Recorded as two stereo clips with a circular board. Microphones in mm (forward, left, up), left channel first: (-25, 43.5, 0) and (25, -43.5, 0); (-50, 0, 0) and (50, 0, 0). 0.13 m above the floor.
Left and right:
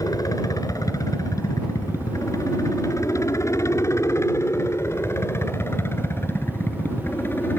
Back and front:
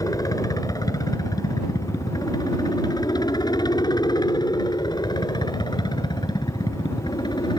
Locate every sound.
0.0 s a helicopter: 150° left; by 7.6 s straight behind